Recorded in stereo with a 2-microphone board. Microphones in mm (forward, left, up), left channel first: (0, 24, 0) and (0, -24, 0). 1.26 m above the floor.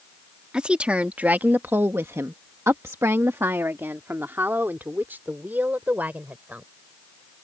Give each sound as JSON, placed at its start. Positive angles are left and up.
{"t": 0.5, "sound": "a woman speaking", "side_deg": -20}